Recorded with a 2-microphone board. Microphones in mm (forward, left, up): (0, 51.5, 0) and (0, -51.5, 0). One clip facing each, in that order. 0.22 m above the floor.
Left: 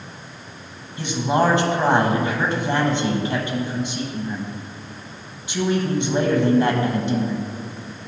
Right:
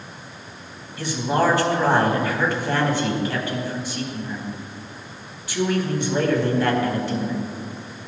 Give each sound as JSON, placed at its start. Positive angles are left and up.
{"t": 1.0, "sound": "a man speaking", "side_deg": 20, "distance_m": 1.0}